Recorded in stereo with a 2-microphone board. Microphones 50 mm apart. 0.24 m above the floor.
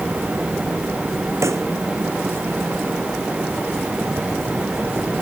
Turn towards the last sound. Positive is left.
turn(degrees=-80)